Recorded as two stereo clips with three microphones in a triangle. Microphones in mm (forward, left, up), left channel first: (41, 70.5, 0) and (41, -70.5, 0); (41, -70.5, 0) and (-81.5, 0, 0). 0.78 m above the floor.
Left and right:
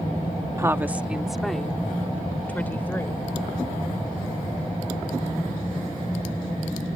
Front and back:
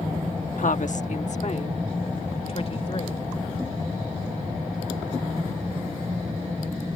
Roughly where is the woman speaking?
Ahead right.